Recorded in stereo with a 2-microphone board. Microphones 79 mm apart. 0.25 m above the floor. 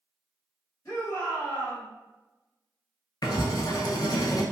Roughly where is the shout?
Left.